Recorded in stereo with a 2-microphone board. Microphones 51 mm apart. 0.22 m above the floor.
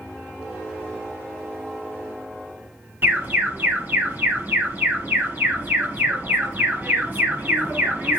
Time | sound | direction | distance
3.0 | an alarm | 45° right (ahead or behind) | 1.8 m